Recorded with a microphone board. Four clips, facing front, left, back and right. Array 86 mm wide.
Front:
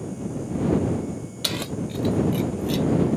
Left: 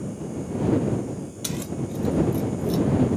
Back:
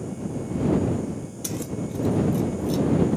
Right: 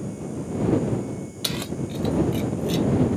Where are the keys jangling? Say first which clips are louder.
Even, front 1 dB; 25° right; by 2.9 s 50° right.